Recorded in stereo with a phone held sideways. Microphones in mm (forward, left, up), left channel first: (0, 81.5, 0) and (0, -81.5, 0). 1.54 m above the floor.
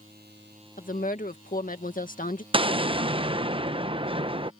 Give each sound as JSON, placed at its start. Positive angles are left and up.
{"t": 0.8, "sound": "a woman speaking", "side_deg": 55}
{"t": 2.5, "sound": "an explosion", "side_deg": -35}